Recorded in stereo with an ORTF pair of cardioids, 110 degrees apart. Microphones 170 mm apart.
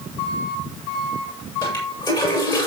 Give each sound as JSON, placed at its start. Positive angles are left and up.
{"t": 1.6, "sound": "a toilet flushing", "azimuth_deg": 25, "distance_m": 7.0}